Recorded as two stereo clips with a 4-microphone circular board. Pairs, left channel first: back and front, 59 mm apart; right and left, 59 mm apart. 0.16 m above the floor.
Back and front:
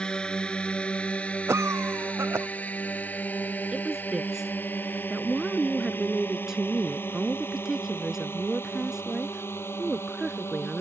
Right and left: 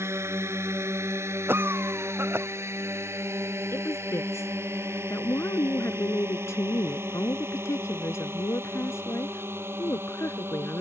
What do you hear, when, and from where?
0.0 s a drone: 110° left; by 10.8 s 140° left
1.5 s a cough: 40° left
3.7 s a woman speaking: 80° right